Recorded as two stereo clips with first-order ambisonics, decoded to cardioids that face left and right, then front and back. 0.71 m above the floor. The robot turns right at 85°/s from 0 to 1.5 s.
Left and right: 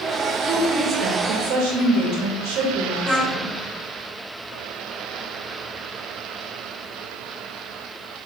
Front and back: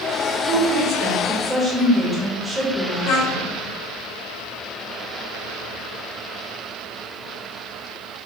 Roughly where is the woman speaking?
Behind.